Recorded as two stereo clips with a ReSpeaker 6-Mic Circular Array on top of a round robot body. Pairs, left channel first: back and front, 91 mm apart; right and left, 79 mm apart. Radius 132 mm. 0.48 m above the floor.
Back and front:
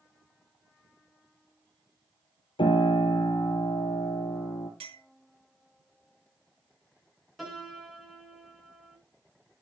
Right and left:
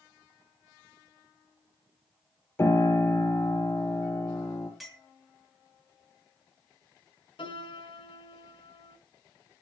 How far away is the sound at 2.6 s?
About 3 m.